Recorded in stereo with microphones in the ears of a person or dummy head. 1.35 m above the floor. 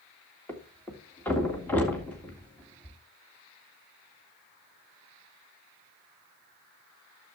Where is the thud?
10° left (ahead or behind), 1.9 m.